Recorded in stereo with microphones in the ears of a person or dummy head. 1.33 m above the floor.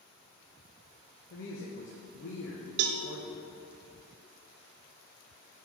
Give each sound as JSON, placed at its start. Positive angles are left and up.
{"t": 1.3, "sound": "a woman speaking", "side_deg": 60, "distance_m": 1.3}
{"t": 2.8, "sound": "a cowbell", "side_deg": -55, "distance_m": 0.7}